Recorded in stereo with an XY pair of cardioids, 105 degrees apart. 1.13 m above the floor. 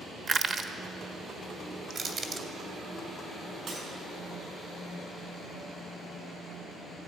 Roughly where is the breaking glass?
Ahead right.